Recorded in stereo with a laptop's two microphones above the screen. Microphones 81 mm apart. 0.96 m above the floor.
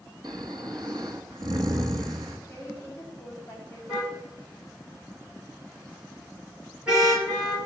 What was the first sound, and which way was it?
Snoring, 60° right (ahead or behind).